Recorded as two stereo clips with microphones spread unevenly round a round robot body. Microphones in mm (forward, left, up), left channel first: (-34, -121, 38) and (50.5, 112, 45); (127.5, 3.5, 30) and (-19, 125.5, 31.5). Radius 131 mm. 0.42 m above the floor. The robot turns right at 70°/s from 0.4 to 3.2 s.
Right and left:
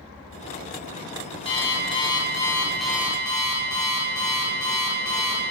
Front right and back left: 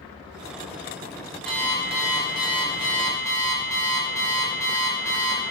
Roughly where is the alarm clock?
Behind right.